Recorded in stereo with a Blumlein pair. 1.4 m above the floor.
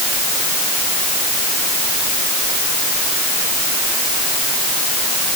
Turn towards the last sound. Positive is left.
No sound to turn to.